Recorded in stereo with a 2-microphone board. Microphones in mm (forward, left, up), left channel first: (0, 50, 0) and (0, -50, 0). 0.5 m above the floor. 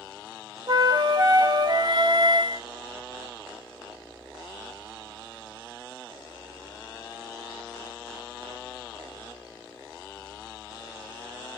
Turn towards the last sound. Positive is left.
turn(degrees=-45)  # may be behind; listen again after turning